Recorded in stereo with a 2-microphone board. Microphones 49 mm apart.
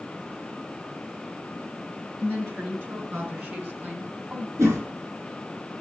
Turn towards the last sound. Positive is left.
turn(degrees=-70)  # may be behind; listen again after turning